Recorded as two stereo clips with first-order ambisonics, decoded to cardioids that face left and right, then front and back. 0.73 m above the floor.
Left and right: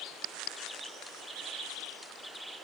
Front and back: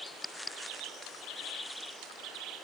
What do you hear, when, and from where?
Only background noise.